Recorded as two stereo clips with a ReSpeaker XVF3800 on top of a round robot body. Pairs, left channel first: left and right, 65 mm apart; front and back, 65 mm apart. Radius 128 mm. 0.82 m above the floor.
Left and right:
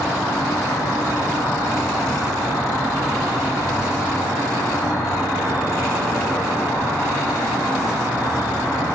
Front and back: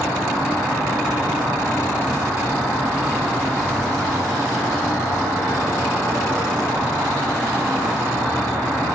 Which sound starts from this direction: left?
An insect, at 0.0 s.